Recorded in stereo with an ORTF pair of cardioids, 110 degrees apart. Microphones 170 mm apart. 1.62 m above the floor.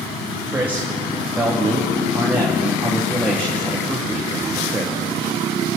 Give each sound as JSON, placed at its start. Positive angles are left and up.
{"t": 0.5, "sound": "a man speaking", "azimuth_deg": -10, "distance_m": 3.0}